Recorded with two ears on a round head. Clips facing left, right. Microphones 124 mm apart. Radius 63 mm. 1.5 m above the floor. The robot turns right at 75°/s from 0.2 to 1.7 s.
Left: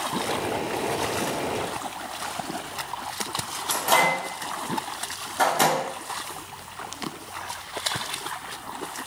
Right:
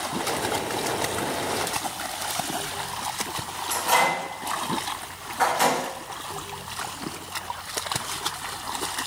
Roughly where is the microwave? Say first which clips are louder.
Left 1 dB; left.